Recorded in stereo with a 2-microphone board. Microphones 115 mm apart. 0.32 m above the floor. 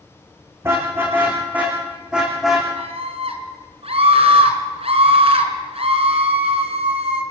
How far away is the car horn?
About 8.5 m.